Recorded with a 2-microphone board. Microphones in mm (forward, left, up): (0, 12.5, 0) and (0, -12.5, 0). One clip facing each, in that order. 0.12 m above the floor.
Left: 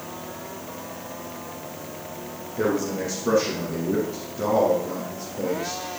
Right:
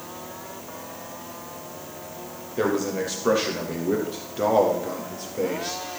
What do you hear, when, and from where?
2.6 s a man speaking: 60° right (ahead or behind), 4 m